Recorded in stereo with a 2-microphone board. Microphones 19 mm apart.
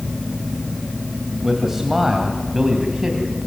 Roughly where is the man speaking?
Centre.